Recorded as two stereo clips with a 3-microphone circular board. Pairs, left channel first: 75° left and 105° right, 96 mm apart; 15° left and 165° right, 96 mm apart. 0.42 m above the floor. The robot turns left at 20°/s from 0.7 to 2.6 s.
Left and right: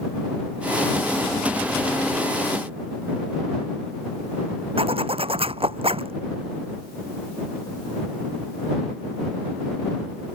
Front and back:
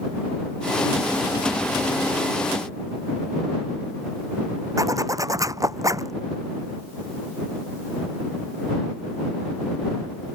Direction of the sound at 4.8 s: 110° right.